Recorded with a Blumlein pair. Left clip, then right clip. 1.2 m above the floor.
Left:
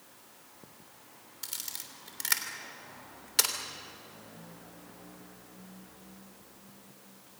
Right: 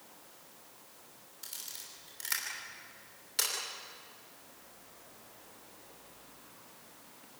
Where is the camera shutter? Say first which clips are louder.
Left 4 dB; 20° left, 3 m.